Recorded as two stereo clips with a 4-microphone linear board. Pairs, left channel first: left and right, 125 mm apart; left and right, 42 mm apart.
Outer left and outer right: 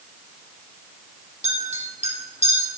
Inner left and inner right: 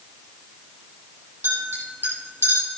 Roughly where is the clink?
Right.